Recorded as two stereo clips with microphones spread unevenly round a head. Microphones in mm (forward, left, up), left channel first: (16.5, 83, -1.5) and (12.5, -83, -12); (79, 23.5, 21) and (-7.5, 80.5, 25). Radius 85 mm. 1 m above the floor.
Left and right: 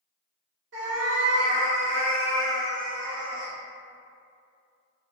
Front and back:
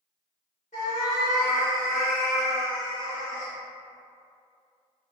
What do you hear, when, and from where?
0.7 s a cat meowing: 80° right, 1.2 m